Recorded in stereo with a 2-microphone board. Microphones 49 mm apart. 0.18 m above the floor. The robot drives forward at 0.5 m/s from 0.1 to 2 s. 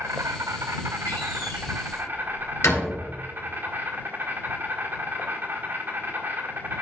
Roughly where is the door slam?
Left.